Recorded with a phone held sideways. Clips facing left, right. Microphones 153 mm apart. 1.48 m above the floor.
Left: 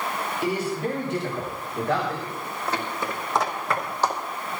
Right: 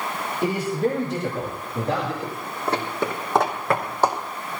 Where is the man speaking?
45° right (ahead or behind), 4.5 m; by 2.1 s 30° right (ahead or behind), 6 m.